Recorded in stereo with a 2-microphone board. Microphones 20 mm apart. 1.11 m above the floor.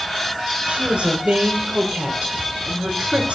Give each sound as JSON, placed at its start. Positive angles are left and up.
{"t": 0.6, "sound": "a woman speaking", "side_deg": -55, "distance_m": 3.5}